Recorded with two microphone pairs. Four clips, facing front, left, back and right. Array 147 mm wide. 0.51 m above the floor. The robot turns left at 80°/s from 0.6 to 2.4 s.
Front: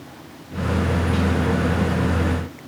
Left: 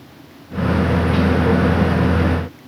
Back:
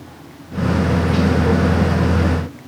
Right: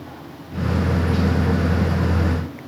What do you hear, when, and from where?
Only background noise.